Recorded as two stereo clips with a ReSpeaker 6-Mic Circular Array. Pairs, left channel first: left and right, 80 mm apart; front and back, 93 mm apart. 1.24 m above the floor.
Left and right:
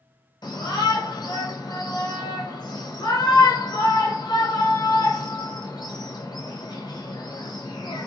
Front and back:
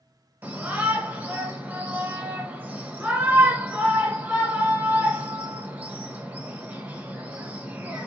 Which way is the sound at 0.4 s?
110° left.